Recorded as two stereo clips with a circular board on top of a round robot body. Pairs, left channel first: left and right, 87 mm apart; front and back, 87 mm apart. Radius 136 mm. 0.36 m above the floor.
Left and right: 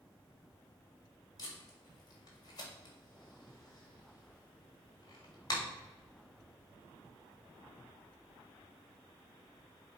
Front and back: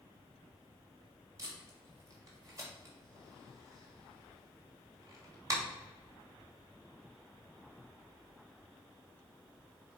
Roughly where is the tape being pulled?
Behind left.